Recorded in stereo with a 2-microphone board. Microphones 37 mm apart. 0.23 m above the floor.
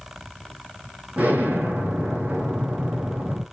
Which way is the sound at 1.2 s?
45° right (ahead or behind).